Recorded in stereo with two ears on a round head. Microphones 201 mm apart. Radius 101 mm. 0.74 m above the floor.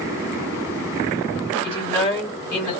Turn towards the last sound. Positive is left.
turn(degrees=20)  # may be behind; listen again after turning